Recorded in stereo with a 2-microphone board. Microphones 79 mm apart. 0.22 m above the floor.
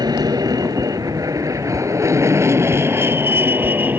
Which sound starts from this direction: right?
An aircraft, at 0.0 s.